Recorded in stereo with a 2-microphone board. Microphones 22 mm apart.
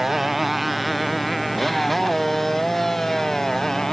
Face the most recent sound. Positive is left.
turn(degrees=20)  # may be behind; listen again after turning